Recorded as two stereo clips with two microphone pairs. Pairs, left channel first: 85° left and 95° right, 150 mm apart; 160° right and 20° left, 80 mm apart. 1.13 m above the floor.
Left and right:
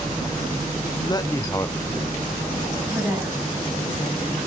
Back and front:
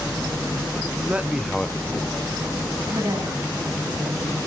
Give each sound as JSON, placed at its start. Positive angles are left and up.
{"t": 1.0, "sound": "a man speaking", "azimuth_deg": 70, "distance_m": 0.7}
{"t": 2.9, "sound": "a woman speaking", "azimuth_deg": -15, "distance_m": 7.0}